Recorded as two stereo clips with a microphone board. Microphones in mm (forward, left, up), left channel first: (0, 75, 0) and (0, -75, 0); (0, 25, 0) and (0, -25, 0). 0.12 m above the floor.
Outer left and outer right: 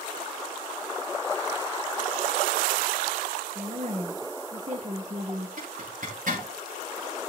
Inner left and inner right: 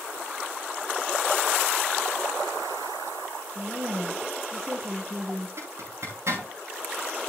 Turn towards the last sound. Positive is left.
turn(degrees=-60)  # may be behind; listen again after turning